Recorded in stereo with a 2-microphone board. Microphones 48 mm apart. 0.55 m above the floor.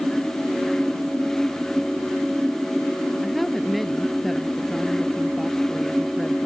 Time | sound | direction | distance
3.2 | a woman speaking | 5° left (ahead or behind) | ?